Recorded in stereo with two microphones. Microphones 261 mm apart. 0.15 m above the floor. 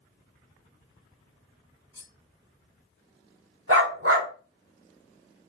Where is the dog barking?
55° right (ahead or behind), 1.4 m.